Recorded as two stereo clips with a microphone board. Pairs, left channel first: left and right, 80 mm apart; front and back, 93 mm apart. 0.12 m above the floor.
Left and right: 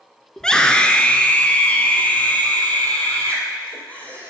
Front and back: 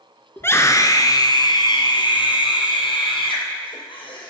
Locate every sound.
0.4 s a scream: 20° left, 1.2 m